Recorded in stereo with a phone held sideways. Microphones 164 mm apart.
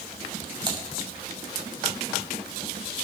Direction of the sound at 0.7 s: 25° right (ahead or behind).